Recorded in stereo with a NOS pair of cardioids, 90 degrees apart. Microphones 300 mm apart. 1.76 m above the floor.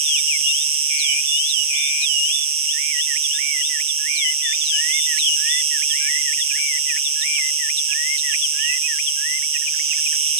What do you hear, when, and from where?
0.0 s an insect: 45° right, 6 m